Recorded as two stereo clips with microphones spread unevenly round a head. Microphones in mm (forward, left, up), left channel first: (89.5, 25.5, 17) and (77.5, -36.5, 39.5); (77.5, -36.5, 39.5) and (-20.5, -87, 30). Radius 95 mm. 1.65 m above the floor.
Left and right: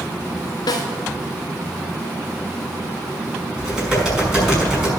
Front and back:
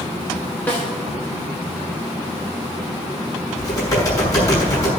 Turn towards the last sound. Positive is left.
turn(degrees=-25)